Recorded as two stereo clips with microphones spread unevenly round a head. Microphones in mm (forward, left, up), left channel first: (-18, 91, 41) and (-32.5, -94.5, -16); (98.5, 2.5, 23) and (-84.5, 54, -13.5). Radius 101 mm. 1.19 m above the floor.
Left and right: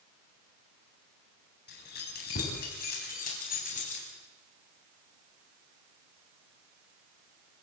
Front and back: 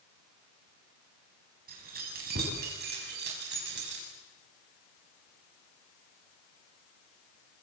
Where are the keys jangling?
120° left, 7.5 m; by 4.0 s 135° left, 7 m.